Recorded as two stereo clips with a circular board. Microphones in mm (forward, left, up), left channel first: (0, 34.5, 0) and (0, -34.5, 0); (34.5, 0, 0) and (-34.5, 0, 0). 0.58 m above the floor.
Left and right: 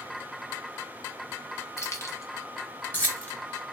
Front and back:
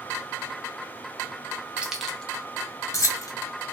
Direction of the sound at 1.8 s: 115° left.